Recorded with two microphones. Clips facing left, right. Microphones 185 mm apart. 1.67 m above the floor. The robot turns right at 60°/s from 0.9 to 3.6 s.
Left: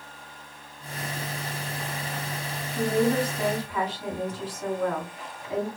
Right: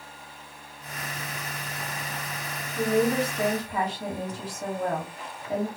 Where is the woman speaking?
170° left, 2.0 m; by 5.7 s 140° right, 2.0 m.